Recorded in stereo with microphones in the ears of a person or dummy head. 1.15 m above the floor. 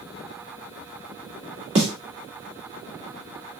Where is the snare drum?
35° right (ahead or behind), 1.8 m.